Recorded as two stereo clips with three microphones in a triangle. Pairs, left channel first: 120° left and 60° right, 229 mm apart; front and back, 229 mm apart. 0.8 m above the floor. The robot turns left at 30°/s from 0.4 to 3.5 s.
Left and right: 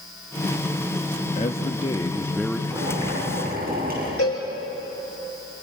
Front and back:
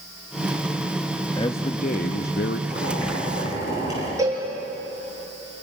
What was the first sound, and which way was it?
A man speaking, 70° left.